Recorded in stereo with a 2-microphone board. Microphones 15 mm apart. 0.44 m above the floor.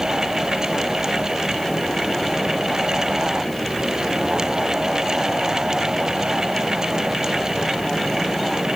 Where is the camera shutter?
I don't hear a camera shutter.